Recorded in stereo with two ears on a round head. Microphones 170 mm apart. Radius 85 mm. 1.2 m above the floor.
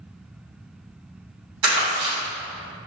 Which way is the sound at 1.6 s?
80° right.